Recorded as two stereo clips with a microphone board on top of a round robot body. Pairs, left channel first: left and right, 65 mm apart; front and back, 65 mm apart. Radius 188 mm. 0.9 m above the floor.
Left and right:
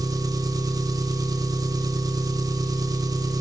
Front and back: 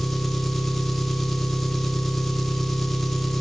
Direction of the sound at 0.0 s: 90° right.